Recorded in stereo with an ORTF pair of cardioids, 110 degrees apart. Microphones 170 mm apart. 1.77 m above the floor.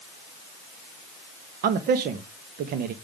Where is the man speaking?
65° right, 1.2 m.